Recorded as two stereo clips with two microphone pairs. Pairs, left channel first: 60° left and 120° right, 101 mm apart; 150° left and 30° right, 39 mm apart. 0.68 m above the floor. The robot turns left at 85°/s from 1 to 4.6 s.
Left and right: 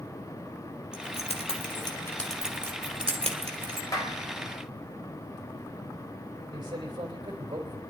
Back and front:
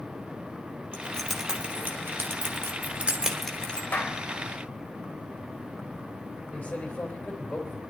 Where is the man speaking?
155° right, 3 m.